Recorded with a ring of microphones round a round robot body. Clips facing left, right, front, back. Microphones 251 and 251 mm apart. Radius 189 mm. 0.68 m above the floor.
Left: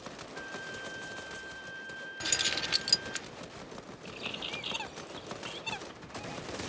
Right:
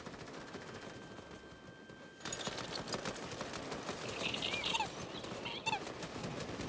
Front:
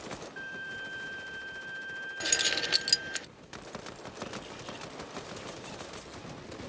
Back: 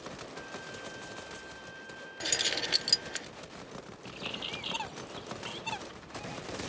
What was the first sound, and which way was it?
A violin, 75° left.